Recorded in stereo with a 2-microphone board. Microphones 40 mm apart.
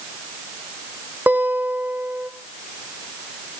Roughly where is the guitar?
Right.